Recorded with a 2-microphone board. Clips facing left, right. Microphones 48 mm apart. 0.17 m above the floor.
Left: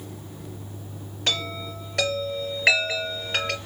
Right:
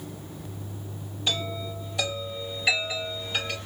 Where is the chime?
65° left (ahead or behind), 3.5 m.